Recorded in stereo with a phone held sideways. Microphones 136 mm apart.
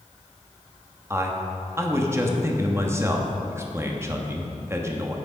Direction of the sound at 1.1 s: 20° right (ahead or behind).